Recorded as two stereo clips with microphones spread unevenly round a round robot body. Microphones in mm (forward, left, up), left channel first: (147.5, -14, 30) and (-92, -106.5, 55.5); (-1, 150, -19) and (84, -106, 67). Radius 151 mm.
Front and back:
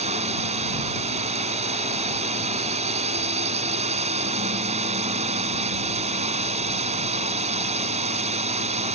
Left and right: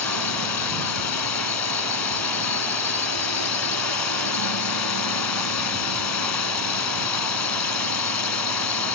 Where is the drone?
130° left.